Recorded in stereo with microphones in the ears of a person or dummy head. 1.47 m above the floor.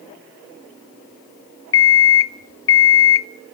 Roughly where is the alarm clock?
Centre.